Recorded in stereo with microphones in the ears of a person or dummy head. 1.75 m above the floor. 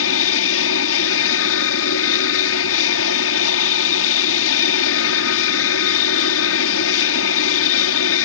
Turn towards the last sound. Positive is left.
turn(degrees=70)  # may be behind; listen again after turning